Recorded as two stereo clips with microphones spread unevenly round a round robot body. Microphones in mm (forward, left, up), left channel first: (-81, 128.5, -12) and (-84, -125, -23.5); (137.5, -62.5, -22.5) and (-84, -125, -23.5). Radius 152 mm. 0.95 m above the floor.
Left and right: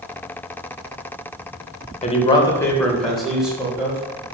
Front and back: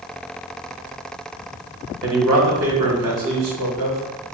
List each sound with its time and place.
2.0 s a man speaking: 150° left, 0.7 m; by 4.0 s 175° right, 1.5 m